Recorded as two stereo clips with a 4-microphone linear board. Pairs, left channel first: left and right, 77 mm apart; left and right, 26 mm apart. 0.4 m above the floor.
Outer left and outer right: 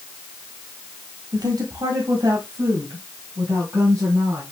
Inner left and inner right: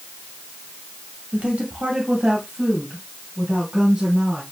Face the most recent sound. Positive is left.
turn(degrees=-40)  # may be behind; listen again after turning